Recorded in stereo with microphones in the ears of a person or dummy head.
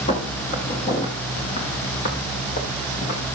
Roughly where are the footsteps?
Left.